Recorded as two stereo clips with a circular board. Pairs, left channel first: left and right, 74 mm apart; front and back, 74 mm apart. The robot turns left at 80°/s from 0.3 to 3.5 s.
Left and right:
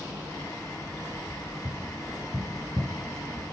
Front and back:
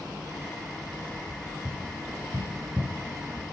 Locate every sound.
1.6 s tapping: 135° right, 4.5 m; by 3.4 s 80° left, 4.5 m